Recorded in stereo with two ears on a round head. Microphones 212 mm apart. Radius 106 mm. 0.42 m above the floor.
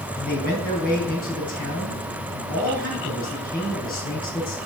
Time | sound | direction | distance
0.1 | a man speaking | 40° left (ahead or behind) | 4 m